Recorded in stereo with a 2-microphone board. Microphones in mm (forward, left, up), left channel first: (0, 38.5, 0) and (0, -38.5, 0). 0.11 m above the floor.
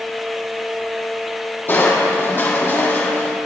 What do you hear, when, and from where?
1.7 s crushing: 30° left (ahead or behind), 2.5 m